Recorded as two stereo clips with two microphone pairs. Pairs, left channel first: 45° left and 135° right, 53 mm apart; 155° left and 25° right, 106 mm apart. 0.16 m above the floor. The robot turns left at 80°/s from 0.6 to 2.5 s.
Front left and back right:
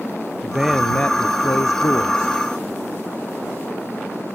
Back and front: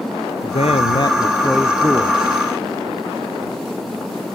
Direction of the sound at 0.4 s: 145° left.